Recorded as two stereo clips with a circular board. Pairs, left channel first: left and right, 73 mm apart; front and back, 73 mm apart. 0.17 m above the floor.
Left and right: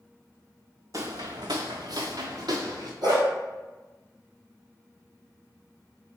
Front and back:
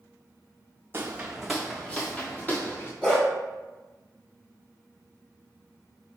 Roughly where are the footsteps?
Behind right.